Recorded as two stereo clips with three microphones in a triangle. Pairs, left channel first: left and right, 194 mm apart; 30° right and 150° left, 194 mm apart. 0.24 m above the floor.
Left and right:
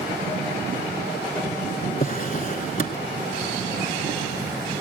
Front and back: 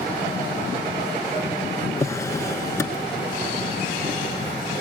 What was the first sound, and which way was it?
A drawer, 40° left.